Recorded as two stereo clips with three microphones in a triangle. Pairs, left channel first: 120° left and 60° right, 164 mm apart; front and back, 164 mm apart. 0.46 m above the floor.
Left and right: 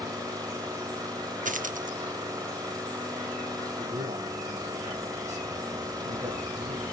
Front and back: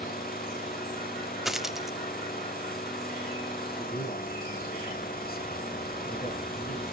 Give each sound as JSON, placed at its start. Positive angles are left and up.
{"t": 0.0, "sound": "an engine running", "azimuth_deg": 5, "distance_m": 2.0}
{"t": 1.4, "sound": "a dropped coin", "azimuth_deg": -90, "distance_m": 0.5}
{"t": 3.8, "sound": "a man speaking", "azimuth_deg": -15, "distance_m": 4.0}